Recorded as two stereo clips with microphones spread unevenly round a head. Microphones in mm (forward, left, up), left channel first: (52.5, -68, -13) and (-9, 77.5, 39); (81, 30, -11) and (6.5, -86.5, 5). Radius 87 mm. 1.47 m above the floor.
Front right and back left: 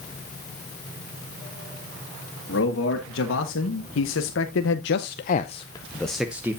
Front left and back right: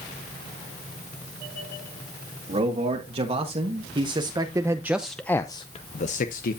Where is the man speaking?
85° right, 2.0 m; by 6.6 s 45° left, 0.9 m.